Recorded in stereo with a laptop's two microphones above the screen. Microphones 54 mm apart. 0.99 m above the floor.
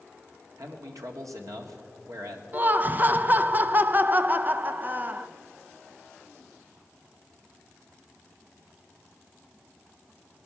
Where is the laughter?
35° right (ahead or behind), 0.5 m.